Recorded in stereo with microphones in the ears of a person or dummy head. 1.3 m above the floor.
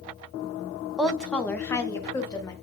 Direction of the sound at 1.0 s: Centre (ahead or behind).